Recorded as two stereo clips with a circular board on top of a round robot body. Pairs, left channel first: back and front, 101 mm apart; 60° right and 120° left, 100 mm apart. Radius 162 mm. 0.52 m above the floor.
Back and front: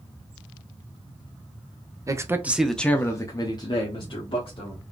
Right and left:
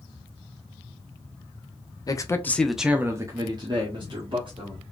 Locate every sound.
2.1 s a man speaking: 35° right, 0.9 m; by 4.8 s 150° left, 1.8 m